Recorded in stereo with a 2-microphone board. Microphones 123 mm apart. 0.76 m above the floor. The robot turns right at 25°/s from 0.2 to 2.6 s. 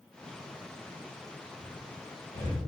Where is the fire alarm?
No fire alarm in this recording.